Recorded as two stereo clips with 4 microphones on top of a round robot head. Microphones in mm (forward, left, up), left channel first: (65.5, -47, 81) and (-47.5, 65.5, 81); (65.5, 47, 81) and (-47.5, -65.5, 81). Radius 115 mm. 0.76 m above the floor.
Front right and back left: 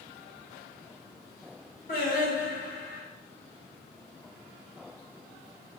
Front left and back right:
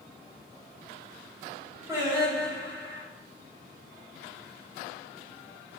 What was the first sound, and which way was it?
Singing, 65° right.